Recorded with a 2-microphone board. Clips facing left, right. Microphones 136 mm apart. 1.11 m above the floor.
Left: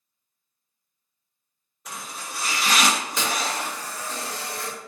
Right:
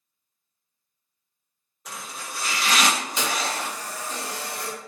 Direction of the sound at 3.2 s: 20° right (ahead or behind).